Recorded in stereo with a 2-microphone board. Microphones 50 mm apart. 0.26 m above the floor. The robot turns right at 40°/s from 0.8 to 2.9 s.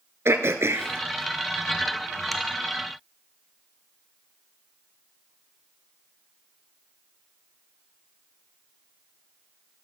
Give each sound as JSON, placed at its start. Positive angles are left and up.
{"t": 0.2, "sound": "throat clearing", "side_deg": -60, "distance_m": 0.8}